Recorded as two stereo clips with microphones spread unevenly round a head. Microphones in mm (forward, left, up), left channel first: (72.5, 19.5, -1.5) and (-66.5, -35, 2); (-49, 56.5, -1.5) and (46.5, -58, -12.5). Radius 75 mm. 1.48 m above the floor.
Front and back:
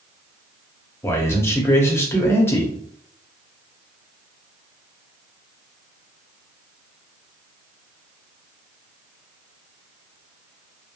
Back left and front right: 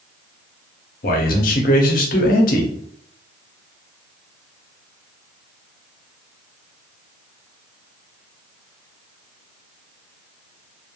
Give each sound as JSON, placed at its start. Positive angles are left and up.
{"t": 1.0, "sound": "a man speaking", "azimuth_deg": 95, "distance_m": 0.8}